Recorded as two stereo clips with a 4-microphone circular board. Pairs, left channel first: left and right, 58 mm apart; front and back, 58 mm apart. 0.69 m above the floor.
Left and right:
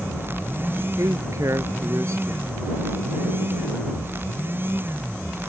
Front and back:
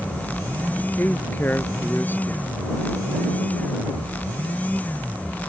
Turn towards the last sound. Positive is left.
turn(degrees=-60)